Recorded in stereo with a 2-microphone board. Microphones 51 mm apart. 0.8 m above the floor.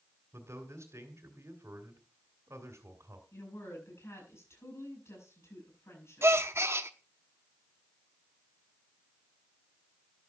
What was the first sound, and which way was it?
A man speaking, 70° right (ahead or behind).